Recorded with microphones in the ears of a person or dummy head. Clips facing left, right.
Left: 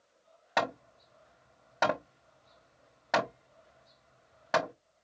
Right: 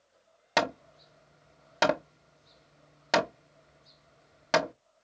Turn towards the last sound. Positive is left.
turn(degrees=-40)  # may be behind; listen again after turning